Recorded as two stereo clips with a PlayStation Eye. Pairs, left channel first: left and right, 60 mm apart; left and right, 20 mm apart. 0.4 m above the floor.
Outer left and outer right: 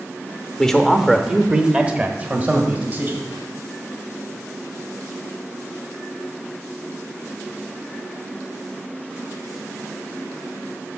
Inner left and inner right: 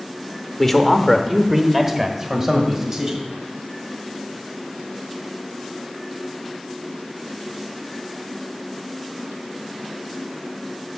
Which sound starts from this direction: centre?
A man speaking, at 0.6 s.